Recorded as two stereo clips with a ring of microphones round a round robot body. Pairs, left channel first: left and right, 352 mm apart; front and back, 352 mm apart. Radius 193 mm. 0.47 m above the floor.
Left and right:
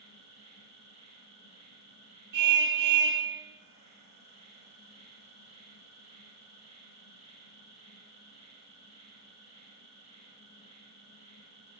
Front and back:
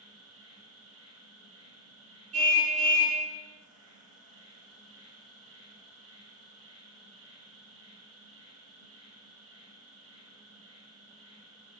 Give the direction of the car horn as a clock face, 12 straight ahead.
4 o'clock.